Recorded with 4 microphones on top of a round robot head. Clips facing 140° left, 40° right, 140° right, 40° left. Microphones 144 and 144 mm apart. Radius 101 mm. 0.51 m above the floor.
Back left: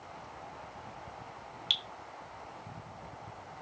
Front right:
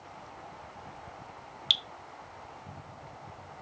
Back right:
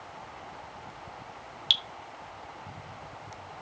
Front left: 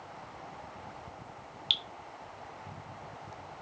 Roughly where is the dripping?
Right.